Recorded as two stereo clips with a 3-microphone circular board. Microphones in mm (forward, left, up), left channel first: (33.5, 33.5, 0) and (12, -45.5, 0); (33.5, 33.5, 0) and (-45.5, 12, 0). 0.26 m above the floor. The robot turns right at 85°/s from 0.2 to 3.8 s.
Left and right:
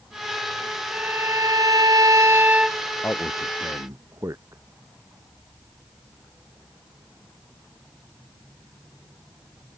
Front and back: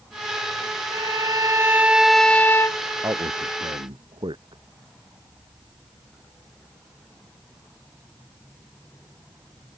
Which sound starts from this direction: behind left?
A man speaking, at 3.0 s.